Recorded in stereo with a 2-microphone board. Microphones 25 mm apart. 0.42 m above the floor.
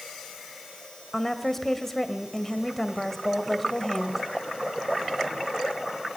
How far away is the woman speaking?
About 1.9 m.